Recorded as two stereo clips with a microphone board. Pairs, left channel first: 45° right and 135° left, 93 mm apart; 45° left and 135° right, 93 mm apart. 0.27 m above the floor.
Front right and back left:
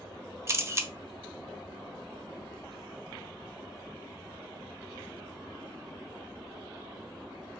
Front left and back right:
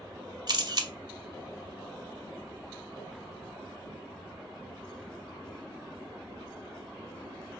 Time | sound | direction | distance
0.5 | a camera shutter | 165° right | 0.6 m